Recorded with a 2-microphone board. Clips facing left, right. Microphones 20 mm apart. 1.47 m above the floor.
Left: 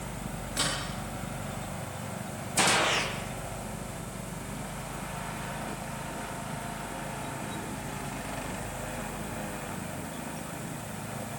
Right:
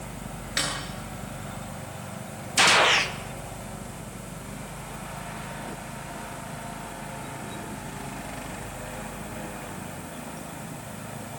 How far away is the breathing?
No breathing in this recording.